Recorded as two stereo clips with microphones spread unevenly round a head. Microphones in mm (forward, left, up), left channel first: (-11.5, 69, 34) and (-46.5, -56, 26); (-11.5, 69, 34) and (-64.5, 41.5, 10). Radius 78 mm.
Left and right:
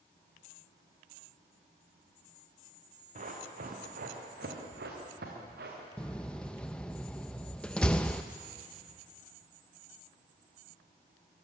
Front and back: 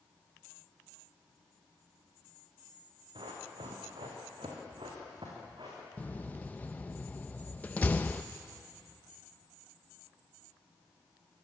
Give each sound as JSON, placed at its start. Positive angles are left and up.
{"t": 3.1, "sound": "running footsteps", "azimuth_deg": -135, "distance_m": 5.0}
{"t": 6.0, "sound": "a door slam", "azimuth_deg": -5, "distance_m": 0.6}